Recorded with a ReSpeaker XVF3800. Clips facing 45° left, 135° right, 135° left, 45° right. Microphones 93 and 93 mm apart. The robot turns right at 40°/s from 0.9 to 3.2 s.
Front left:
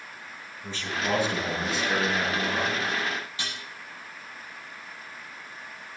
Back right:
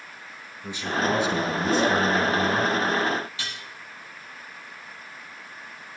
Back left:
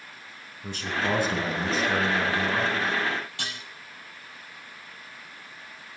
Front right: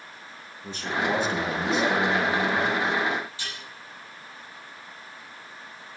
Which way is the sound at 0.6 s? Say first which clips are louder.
Back right 5 dB, front right 1 dB; 150° left.